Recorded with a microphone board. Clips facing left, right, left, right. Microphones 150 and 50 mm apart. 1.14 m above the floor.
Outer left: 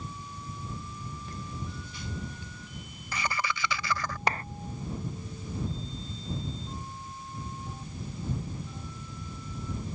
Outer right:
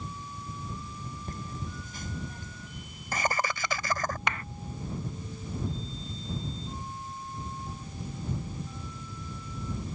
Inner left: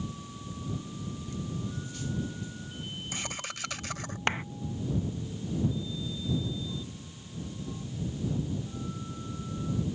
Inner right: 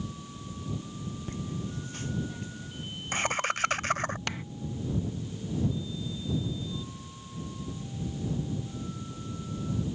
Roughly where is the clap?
Left.